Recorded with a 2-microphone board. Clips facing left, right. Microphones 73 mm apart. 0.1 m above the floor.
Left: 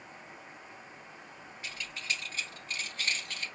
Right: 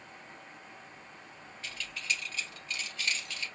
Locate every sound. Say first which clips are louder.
1.6 s keys jangling: right 1 dB; 15° left (ahead or behind), 1.7 m; by 3.5 s 45° left (ahead or behind), 1.8 m